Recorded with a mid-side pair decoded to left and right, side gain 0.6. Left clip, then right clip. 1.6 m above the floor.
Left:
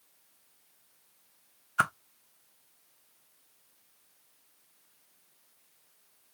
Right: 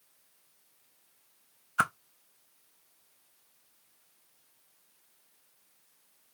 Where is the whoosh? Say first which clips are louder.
Even; 5° right, 0.6 m.